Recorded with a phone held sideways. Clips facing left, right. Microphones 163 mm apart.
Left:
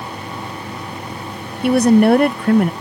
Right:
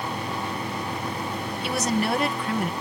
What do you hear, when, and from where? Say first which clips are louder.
1.6 s a woman speaking: left 14 dB; 55° left (ahead or behind)